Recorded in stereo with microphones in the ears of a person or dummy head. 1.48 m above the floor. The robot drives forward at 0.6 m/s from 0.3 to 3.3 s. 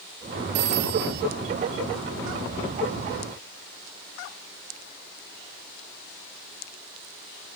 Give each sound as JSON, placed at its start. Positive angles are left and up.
{"t": 0.6, "sound": "a phone ringing", "side_deg": -60}